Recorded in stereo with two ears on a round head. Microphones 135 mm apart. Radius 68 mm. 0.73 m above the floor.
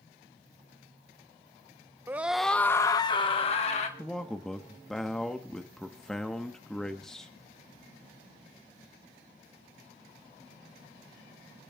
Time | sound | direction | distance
2.1 | a scream | 15° right (ahead or behind) | 0.7 m
4.0 | a man speaking | 5° left (ahead or behind) | 1.0 m